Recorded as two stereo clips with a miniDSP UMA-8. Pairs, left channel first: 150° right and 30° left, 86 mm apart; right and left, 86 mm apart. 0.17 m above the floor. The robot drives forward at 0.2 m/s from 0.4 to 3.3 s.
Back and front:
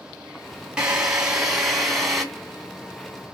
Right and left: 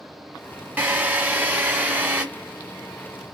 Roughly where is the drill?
Left.